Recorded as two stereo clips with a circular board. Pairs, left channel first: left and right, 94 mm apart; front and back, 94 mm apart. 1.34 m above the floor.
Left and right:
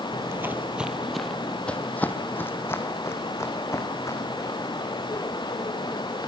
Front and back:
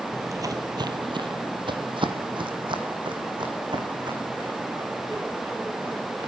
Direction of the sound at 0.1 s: 135° right.